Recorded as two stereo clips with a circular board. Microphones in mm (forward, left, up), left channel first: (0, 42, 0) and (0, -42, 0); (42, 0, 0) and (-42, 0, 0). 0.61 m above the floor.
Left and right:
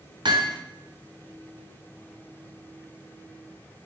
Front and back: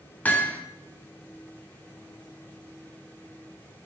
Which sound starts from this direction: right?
Hammering, at 0.2 s.